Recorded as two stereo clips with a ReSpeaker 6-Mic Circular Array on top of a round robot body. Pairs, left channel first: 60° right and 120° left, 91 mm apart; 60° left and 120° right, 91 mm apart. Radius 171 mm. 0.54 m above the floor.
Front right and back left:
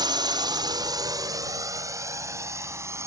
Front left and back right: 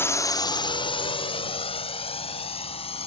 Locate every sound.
0.0 s a drone: 115° left; by 3.1 s 60° left